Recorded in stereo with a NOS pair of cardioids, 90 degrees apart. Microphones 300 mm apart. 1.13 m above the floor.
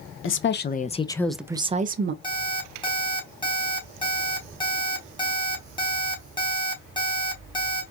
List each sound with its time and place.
0.2 s a woman speaking: 45° left, 0.8 m; by 2.1 s 40° right, 0.7 m
2.2 s an alarm clock: 15° left, 1.9 m